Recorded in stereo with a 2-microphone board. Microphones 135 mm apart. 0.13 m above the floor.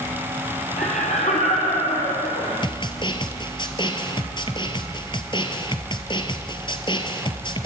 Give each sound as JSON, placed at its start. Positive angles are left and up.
{"t": 0.8, "sound": "laughter", "side_deg": 55, "distance_m": 3.5}
{"t": 2.6, "sound": "a snare drum", "side_deg": 35, "distance_m": 1.8}